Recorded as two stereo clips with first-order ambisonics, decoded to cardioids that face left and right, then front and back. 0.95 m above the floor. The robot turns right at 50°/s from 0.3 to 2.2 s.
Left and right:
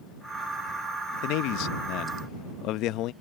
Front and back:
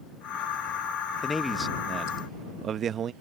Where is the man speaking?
75° left; by 3.1 s 125° left.